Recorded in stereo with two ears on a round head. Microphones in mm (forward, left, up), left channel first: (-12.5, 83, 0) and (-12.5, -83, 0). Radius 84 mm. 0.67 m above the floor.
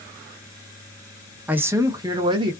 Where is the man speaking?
10° right (ahead or behind), 0.6 m; by 2.5 s 30° right (ahead or behind), 1.1 m.